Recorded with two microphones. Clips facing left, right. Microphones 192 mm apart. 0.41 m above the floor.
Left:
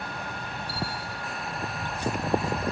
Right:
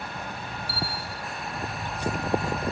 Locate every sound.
0.7 s a bell: 40° right (ahead or behind)